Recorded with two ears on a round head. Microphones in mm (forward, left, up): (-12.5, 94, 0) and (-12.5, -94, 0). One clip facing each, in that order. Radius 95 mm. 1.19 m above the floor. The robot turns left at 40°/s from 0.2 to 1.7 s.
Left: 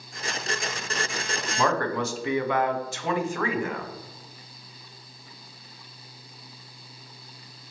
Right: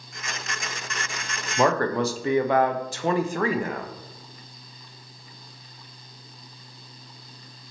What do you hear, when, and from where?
1.6 s a man speaking: 30° right (ahead or behind), 0.5 m